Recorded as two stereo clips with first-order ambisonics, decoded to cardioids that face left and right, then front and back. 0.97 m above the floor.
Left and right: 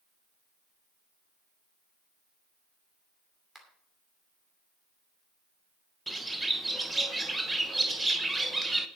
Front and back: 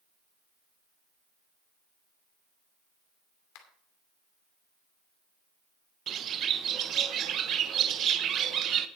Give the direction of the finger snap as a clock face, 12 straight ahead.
12 o'clock.